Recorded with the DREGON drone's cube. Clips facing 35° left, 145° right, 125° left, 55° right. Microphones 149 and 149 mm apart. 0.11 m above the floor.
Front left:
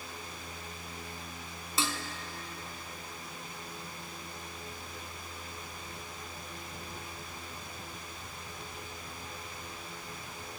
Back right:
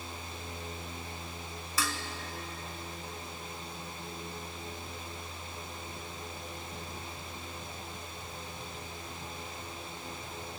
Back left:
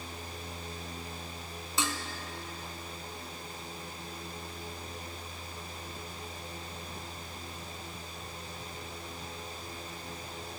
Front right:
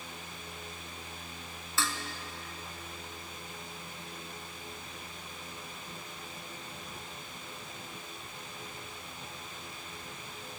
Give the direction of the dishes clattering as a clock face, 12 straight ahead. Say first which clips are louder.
Front left 1 dB, back left 1 dB; 10 o'clock.